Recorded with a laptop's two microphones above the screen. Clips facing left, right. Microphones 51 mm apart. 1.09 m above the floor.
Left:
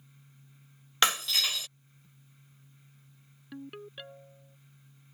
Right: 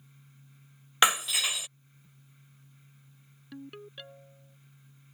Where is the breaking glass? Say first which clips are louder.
Right 2 dB; 15° right (ahead or behind).